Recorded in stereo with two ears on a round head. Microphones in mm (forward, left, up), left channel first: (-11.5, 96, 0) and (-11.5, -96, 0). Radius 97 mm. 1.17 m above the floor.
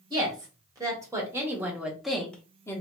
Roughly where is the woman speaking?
Centre.